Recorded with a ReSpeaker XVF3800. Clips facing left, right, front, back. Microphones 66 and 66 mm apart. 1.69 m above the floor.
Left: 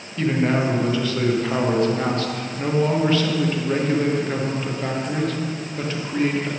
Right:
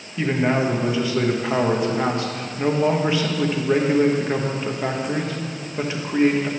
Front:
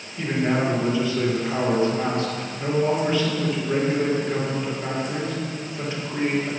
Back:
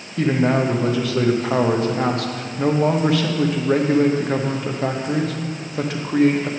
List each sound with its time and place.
0.2 s a man speaking: 165° right, 1.1 m